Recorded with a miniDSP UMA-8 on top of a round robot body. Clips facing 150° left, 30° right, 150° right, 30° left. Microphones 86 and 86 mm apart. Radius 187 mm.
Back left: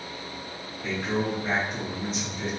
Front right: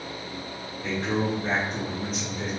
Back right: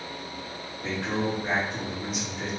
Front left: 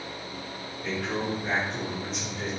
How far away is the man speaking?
About 1.4 m.